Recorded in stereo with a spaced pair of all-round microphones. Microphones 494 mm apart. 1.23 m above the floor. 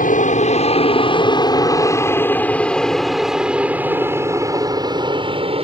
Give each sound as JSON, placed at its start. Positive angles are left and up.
{"t": 0.0, "sound": "an aircraft", "side_deg": 15}